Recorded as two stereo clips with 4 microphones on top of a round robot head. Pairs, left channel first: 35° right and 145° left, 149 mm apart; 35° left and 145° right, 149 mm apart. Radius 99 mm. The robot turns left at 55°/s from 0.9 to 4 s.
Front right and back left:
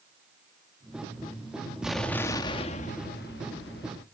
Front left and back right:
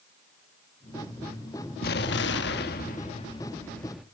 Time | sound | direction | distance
1.8 | an explosion | 60° left | 1.0 m